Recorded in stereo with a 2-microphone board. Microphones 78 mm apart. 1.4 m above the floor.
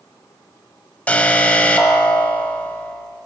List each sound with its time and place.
1.1 s an alarm: 20° left (ahead or behind), 1.4 m